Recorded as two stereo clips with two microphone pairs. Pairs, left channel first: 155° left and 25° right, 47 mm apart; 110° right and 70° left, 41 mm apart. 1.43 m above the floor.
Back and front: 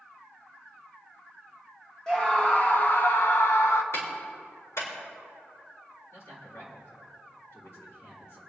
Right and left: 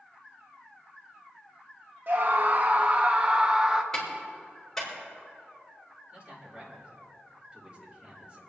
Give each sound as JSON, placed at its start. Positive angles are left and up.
{"t": 2.1, "sound": "a scream", "azimuth_deg": 90, "distance_m": 0.8}
{"t": 3.9, "sound": "a clap", "azimuth_deg": 175, "distance_m": 5.0}
{"t": 6.1, "sound": "a man speaking", "azimuth_deg": 140, "distance_m": 5.0}